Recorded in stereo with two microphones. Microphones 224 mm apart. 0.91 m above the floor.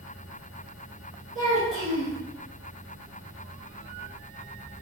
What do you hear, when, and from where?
1.4 s a child speaking: 65° right (ahead or behind), 0.8 m